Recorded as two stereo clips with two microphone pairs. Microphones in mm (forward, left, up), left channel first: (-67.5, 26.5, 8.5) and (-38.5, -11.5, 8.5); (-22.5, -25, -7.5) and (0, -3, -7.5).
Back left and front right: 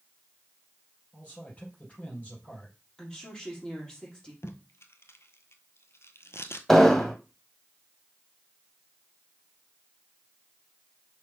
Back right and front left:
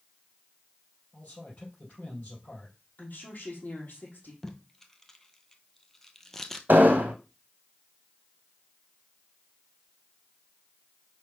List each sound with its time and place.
1.1 s a man speaking: 175° right, 4 m
3.0 s a woman speaking: 160° right, 3.5 m
4.4 s tape being pulled: 145° left, 0.9 m
6.7 s an explosion: 50° left, 1.0 m